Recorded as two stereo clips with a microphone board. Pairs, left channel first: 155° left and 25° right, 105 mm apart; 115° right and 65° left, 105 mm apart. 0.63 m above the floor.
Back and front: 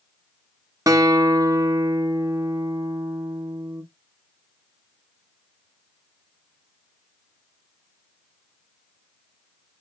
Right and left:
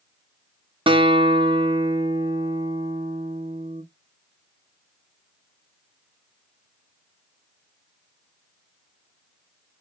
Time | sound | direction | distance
0.9 | a guitar | 35° left | 0.5 m